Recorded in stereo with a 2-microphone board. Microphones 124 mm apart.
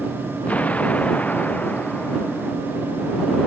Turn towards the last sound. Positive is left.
turn(degrees=10)  # may be behind; listen again after turning